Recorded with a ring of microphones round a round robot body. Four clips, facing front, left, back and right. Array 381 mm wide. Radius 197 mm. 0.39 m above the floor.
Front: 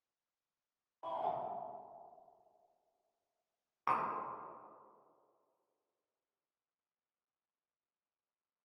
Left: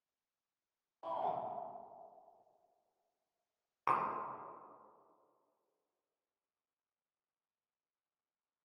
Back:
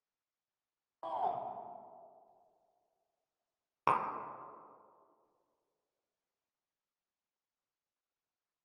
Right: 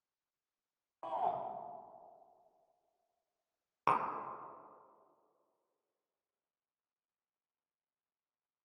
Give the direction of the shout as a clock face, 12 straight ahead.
5 o'clock.